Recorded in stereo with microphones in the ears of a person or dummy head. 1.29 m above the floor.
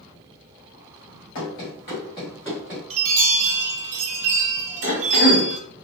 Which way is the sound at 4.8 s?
60° left (ahead or behind).